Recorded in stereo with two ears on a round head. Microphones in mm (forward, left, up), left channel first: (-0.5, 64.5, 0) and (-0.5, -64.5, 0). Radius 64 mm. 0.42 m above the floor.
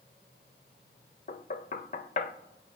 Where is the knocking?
55° left (ahead or behind), 0.8 m.